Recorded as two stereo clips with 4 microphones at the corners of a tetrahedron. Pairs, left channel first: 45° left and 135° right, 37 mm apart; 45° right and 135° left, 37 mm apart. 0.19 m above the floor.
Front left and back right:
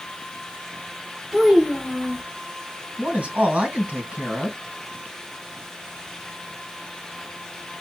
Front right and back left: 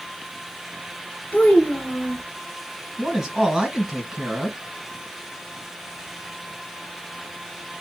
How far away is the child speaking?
About 1.4 m.